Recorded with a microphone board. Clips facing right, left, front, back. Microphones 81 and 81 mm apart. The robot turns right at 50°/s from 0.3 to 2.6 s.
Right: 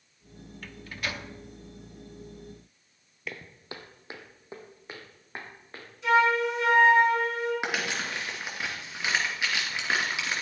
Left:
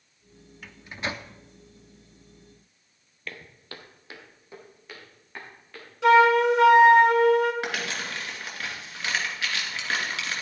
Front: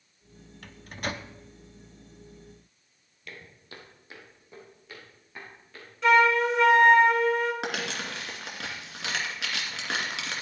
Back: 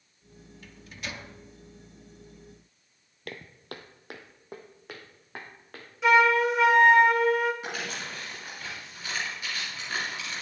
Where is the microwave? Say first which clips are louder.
Left 3 dB, front 6 dB; 10° left, 0.5 m; by 1.3 s 45° left, 0.5 m.